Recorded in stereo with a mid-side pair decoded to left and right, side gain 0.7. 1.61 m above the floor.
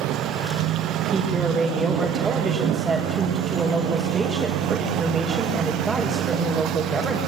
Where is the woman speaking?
15° right, 6 m.